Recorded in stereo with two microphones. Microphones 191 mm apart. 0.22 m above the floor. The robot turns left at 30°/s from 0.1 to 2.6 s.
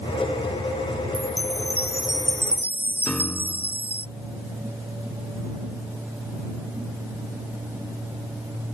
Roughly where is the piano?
Centre.